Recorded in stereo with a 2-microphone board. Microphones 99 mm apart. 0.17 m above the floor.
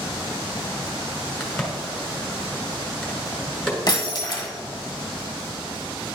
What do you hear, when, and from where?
1.4 s a crack: 5° left (ahead or behind), 1.8 m
3.9 s breaking glass: 40° left (ahead or behind), 1.7 m